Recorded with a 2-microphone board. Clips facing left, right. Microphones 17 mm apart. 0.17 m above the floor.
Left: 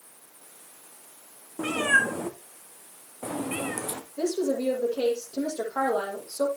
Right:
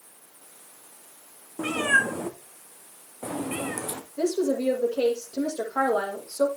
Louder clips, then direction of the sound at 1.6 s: Even; 5° right (ahead or behind).